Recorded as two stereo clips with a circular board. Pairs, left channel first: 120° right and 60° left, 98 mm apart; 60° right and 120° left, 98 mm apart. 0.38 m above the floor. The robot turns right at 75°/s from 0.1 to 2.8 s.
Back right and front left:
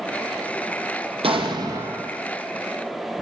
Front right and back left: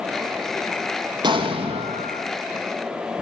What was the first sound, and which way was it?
An explosion, 80° left.